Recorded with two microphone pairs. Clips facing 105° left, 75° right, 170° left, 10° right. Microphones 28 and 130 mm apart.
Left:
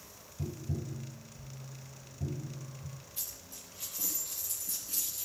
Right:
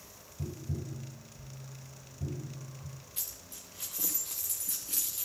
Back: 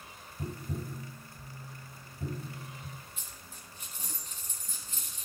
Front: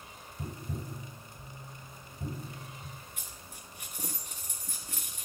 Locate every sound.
0.4 s tapping: 70° left, 1.1 m
3.2 s a dropped coin: 40° right, 1.1 m